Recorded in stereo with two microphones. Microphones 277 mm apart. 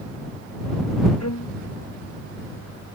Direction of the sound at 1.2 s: 65° left (ahead or behind).